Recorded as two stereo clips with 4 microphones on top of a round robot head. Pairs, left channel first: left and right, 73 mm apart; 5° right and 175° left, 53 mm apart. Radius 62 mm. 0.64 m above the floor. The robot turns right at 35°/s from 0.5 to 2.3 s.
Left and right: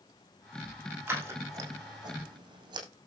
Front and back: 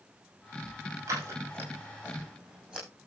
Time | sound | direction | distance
1.1 | scissors | 155° right | 6 m